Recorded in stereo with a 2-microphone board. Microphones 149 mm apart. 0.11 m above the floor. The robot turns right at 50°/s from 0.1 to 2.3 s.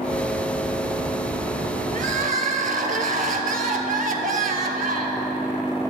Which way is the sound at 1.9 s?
60° right (ahead or behind).